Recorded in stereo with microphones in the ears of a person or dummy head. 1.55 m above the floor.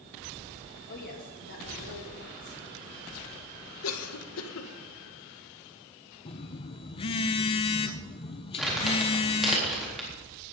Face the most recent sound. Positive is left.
turn(degrees=-5)  # may be behind; listen again after turning